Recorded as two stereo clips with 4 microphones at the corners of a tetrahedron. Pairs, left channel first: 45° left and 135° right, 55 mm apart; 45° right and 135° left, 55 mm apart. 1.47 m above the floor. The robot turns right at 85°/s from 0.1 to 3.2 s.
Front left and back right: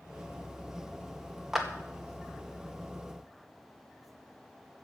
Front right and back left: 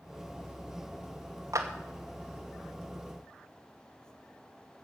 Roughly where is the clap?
Behind left.